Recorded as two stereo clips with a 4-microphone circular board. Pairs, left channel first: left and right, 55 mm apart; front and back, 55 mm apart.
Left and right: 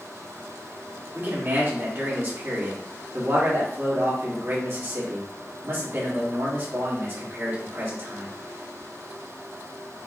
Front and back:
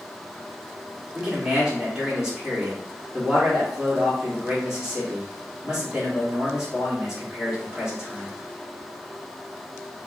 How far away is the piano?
I don't hear a piano.